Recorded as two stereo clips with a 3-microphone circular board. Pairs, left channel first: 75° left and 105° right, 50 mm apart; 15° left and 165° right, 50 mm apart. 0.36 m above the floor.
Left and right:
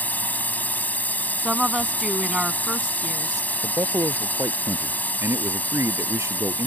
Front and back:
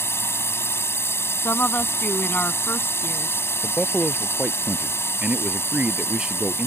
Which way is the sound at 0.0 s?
25° left.